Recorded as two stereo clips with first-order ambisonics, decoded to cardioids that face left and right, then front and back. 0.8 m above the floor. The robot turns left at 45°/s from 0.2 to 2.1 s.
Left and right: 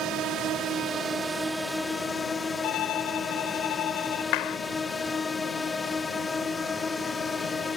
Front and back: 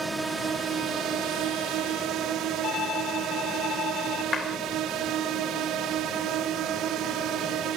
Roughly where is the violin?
Ahead left.